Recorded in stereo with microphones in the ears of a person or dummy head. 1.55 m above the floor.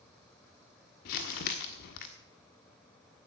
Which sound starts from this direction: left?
Crumpling, at 1.1 s.